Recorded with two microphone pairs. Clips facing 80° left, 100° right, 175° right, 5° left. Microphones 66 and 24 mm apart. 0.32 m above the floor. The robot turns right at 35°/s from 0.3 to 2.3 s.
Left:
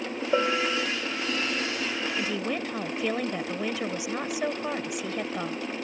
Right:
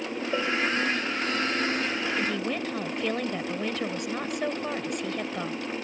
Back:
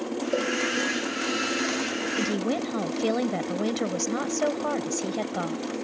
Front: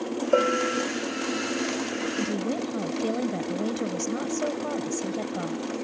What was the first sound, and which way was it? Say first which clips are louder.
A bell: left 2 dB, front 4 dB; 15° left.